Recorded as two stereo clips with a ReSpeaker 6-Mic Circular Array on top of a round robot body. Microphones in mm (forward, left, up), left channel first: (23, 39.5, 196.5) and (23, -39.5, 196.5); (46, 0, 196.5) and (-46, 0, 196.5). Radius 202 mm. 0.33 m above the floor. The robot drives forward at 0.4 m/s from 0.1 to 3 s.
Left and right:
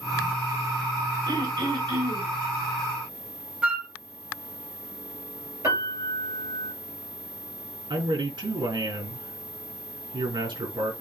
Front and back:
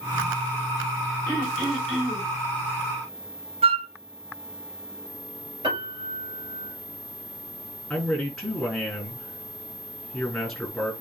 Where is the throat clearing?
80° right, 5 m; by 2.3 s 85° right, 4.5 m.